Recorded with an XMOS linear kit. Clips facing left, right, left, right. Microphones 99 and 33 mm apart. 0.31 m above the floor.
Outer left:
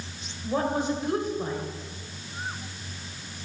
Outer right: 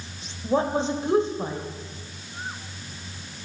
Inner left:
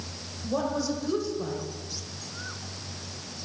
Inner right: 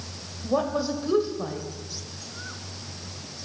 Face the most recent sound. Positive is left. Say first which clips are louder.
# outer right 3 dB, inner right 3 dB
turn(degrees=-30)  # may be behind; listen again after turning